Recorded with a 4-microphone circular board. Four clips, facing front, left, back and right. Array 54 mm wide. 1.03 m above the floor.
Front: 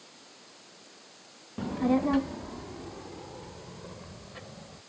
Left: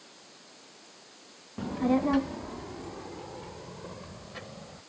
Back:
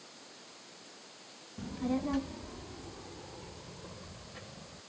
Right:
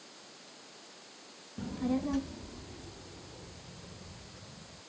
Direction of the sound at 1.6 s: 35° left.